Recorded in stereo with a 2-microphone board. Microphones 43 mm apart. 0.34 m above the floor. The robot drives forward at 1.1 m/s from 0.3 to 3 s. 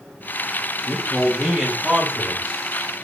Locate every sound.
0.9 s a man speaking: 5° right (ahead or behind), 4 m